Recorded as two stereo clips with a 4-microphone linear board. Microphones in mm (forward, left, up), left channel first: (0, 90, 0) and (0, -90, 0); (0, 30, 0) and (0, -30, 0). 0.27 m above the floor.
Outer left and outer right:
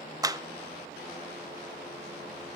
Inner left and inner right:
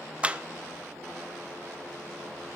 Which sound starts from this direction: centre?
A clap, at 0.2 s.